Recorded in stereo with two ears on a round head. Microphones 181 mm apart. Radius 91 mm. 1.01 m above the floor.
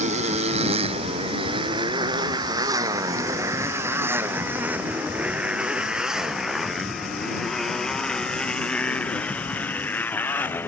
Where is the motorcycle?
35° right (ahead or behind); by 10.7 s 10° left (ahead or behind).